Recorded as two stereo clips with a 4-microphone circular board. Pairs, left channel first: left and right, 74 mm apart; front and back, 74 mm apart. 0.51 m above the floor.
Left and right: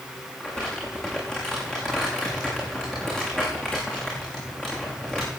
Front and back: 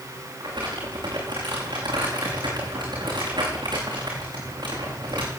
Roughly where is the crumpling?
Behind.